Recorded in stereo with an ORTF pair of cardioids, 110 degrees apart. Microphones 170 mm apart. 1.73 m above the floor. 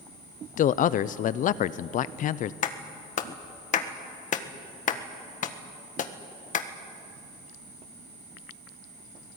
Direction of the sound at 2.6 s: 50° left.